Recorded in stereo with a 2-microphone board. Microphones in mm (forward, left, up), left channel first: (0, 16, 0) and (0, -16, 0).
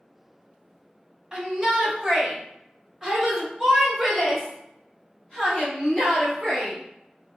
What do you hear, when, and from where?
1.3 s a shout: 20° right (ahead or behind), 1.6 m; by 7.4 s 5° left (ahead or behind), 2.5 m